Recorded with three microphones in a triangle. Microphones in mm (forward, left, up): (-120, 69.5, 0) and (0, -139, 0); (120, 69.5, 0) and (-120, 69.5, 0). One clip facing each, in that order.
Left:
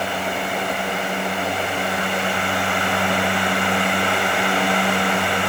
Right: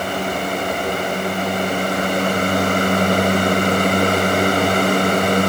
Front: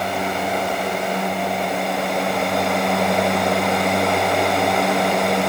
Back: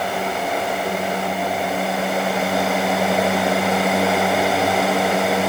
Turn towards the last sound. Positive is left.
No sound to turn to.